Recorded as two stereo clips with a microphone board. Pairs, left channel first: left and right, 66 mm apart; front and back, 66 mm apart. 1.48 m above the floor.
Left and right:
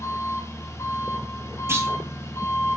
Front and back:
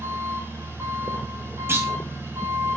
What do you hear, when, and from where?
0.0 s an engine running: 130° left, 7 m
1.7 s a clunk: 130° right, 2.5 m